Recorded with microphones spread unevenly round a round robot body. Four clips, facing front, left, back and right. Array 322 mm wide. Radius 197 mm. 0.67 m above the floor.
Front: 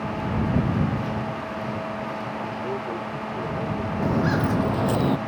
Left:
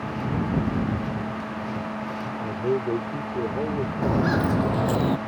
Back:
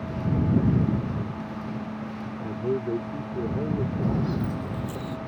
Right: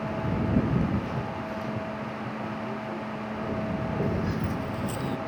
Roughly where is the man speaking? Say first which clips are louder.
Left 8 dB, back 5 dB; behind left.